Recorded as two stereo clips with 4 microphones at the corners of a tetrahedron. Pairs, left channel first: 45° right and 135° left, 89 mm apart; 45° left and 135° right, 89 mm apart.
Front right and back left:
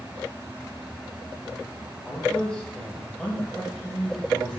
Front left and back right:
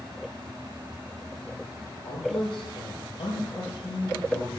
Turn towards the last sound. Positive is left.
turn(degrees=40)